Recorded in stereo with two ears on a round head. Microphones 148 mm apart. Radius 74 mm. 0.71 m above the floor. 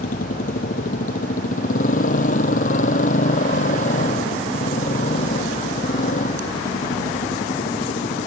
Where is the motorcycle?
50° left (ahead or behind); by 8.3 s 45° left (ahead or behind).